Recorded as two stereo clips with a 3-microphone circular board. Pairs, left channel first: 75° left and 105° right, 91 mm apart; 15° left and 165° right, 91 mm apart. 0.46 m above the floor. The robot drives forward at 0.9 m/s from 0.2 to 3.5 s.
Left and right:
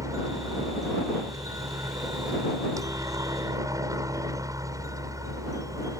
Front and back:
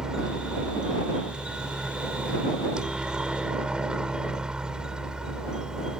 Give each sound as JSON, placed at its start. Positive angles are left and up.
{"t": 0.0, "sound": "a helicopter", "azimuth_deg": -85}